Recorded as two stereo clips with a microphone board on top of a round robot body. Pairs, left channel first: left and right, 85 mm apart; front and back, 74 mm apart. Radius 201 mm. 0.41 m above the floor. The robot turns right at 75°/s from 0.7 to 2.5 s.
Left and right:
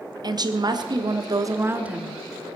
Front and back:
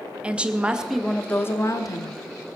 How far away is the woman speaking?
About 1.4 m.